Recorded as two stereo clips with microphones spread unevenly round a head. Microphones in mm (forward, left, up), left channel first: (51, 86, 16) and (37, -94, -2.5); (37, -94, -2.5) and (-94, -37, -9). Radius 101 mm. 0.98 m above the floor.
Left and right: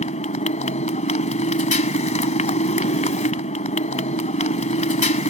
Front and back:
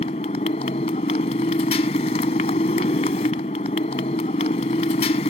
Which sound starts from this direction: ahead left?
A motorcycle, at 0.0 s.